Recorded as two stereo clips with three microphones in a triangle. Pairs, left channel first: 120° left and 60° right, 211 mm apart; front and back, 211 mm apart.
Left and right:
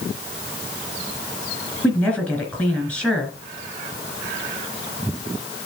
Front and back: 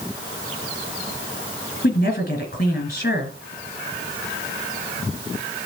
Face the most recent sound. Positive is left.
turn(degrees=35)